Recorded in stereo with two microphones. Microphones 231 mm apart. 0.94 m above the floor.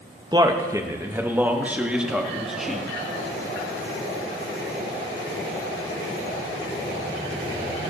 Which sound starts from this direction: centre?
A man speaking, at 0.3 s.